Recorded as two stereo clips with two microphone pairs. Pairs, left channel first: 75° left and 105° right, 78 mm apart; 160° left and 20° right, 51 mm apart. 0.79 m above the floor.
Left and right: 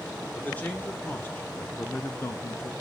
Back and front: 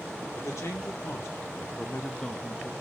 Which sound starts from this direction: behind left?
A man speaking, at 0.3 s.